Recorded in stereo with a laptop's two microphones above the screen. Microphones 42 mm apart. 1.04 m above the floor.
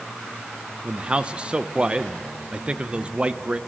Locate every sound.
0.8 s a man speaking: 25° right (ahead or behind), 0.6 m